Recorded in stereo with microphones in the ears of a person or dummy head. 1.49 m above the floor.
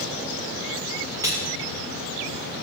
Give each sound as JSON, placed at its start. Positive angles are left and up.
{"t": 1.2, "sound": "cutlery clinking", "side_deg": -25, "distance_m": 1.8}